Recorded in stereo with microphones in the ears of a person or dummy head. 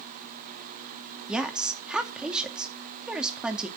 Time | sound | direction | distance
1.3 | a woman speaking | 5° right (ahead or behind) | 1.9 m